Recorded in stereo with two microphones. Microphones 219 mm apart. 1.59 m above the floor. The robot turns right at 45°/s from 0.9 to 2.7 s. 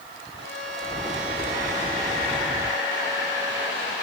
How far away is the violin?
About 7.5 m.